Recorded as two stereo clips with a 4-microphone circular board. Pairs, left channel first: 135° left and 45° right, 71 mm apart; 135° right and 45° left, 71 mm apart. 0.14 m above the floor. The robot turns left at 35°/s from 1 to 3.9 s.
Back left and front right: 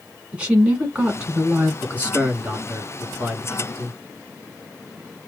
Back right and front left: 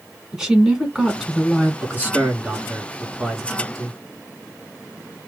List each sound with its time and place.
0.3 s a woman speaking: 20° right, 1.6 m; by 1.7 s 45° right, 1.6 m
1.8 s a man speaking: 10° left, 1.3 m; by 4.0 s 65° right, 1.3 m